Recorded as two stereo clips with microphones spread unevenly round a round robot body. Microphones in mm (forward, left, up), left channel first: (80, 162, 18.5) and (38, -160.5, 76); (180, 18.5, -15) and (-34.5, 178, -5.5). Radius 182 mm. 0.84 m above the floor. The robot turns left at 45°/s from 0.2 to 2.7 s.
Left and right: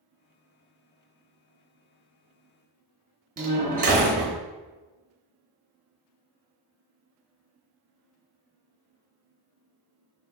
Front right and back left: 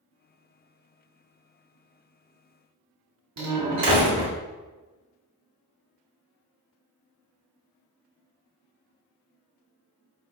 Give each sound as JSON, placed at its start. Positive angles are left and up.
{"t": 3.4, "sound": "a door slam", "azimuth_deg": -165, "distance_m": 0.8}